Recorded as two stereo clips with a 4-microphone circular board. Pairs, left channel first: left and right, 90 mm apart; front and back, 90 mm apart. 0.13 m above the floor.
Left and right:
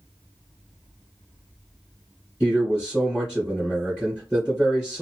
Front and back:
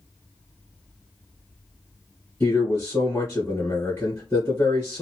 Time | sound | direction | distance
2.4 | a man speaking | 20° right | 1.8 m